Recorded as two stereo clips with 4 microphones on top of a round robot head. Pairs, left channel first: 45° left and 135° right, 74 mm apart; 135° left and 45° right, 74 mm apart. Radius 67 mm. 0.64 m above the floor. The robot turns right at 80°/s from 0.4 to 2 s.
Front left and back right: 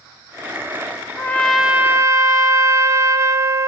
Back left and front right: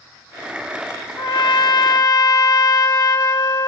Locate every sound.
1.2 s a trumpet: 105° left, 1.7 m; by 3.7 s 175° left, 1.7 m